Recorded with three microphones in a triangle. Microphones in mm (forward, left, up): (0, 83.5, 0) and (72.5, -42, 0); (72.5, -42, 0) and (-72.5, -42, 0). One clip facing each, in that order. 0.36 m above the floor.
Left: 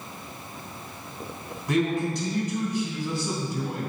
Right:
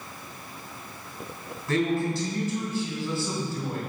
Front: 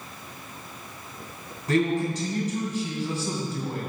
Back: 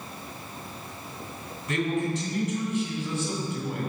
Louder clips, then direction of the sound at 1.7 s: Even, front 4 dB; 50° left.